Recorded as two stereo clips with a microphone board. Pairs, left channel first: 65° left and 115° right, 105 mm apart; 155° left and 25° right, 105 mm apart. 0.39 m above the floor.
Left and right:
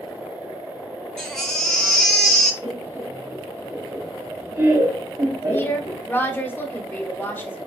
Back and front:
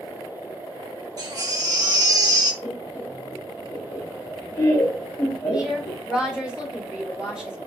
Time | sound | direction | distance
1.2 | a baby crying | 15° right | 0.9 m
2.6 | laughter | 150° right | 1.5 m
5.5 | a woman speaking | 45° left | 1.3 m